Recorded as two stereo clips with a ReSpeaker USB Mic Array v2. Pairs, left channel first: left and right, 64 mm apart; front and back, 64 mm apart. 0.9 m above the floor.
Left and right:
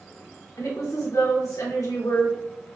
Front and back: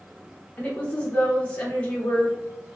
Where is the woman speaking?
65° left, 1.8 m.